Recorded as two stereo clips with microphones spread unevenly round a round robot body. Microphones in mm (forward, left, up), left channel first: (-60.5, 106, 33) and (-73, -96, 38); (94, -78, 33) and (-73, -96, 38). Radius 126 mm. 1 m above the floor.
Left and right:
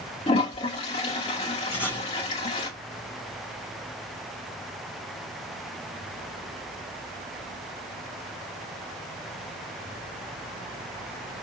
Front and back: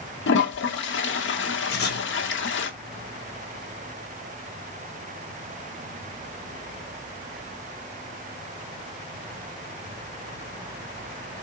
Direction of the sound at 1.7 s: 10° right.